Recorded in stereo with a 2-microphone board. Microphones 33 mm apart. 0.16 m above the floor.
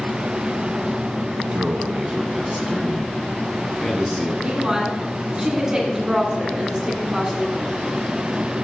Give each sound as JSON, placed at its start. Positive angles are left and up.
{"t": 1.5, "sound": "a man speaking", "side_deg": -35, "distance_m": 1.2}
{"t": 4.4, "sound": "a woman speaking", "side_deg": -20, "distance_m": 2.0}